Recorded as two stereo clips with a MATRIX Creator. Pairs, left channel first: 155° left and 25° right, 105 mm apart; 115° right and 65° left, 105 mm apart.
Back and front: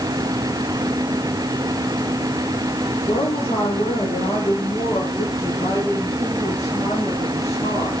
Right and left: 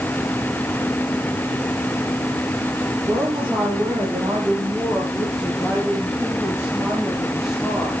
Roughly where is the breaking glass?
I don't hear breaking glass.